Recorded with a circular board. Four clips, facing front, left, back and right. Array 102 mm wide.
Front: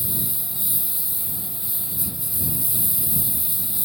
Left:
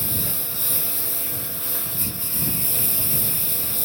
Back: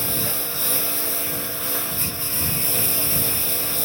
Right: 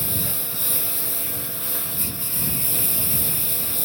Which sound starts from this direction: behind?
A lawn mower, at 0.0 s.